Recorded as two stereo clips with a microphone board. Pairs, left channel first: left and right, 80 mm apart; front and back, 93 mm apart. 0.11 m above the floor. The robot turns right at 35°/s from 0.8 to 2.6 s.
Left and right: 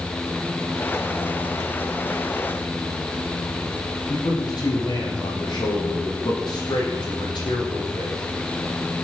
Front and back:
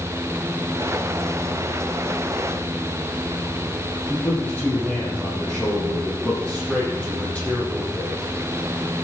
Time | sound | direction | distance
4.1 | a man speaking | 75° left | 4 m